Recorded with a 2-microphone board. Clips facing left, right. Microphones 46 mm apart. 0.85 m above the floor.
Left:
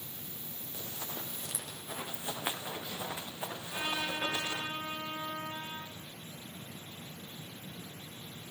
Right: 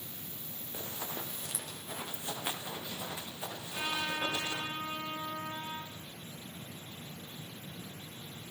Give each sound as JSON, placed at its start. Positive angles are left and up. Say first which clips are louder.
{"t": 0.7, "sound": "running footsteps", "louder": "right 2 dB", "side_deg": -25, "distance_m": 1.7}
{"t": 3.6, "sound": "a trumpet", "louder": "even", "side_deg": 20, "distance_m": 6.5}